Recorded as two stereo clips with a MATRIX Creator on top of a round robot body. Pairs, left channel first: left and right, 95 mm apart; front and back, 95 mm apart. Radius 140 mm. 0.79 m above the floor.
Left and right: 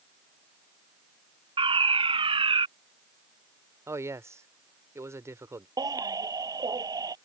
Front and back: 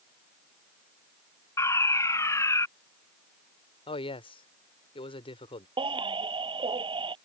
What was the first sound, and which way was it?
A fire alarm, 60° right.